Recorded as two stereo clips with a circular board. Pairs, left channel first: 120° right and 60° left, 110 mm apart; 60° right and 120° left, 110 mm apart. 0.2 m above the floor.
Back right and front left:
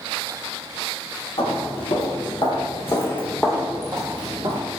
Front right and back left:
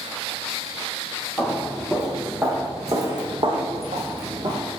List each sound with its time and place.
1.4 s footsteps: 150° right, 1.3 m; by 4.6 s 95° left, 0.7 m